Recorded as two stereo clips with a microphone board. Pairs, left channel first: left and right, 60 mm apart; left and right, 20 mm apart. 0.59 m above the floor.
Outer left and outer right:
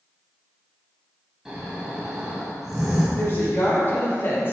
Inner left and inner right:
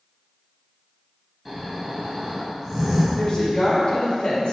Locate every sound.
1.4 s snoring: 10° right (ahead or behind), 2.5 m
3.2 s a woman speaking: 40° left (ahead or behind), 2 m